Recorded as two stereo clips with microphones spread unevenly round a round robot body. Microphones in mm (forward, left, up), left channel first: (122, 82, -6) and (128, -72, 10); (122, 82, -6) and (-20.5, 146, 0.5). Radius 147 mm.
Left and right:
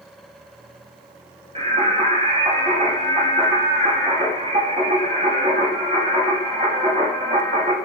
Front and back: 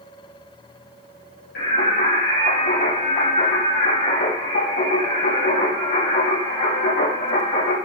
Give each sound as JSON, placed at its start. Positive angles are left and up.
{"t": 1.6, "sound": "singing", "azimuth_deg": -35, "distance_m": 9.0}